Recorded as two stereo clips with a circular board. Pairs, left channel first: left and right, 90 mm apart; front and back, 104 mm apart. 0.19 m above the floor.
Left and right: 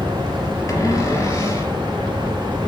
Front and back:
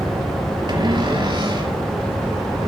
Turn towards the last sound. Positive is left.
turn(degrees=140)